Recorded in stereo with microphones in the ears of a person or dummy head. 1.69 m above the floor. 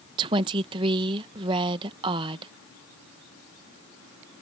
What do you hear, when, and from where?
0.2 s a woman speaking: 25° right (ahead or behind)